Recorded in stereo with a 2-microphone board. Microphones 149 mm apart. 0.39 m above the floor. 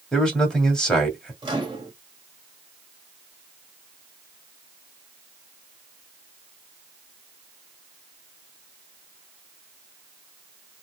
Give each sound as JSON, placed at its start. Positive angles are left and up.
{"t": 0.1, "sound": "a man speaking", "side_deg": 5, "distance_m": 1.8}
{"t": 1.4, "sound": "a microwave", "side_deg": -30, "distance_m": 1.3}